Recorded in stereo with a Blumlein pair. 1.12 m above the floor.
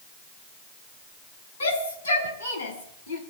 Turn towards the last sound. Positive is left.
turn(degrees=60)